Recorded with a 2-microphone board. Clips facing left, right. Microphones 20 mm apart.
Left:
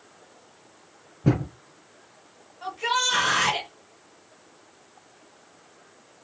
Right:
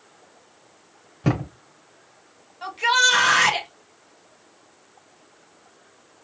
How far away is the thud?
About 2.5 m.